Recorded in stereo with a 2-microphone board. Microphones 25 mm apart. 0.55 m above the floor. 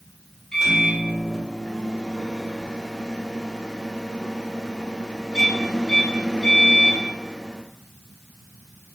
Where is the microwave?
10° left (ahead or behind), 1.4 m.